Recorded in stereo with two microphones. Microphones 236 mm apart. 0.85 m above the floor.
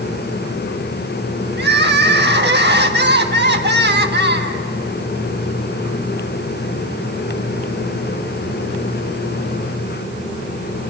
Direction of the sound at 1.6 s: 45° right (ahead or behind).